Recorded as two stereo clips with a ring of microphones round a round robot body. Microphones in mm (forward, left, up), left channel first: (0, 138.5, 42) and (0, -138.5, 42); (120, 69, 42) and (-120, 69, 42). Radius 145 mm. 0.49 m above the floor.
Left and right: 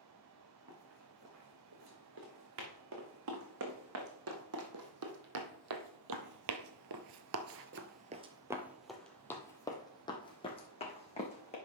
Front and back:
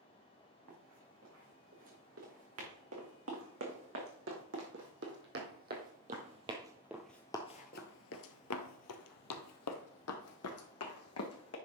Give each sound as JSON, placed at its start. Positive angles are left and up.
{"t": 0.7, "sound": "running footsteps", "azimuth_deg": -135, "distance_m": 3.5}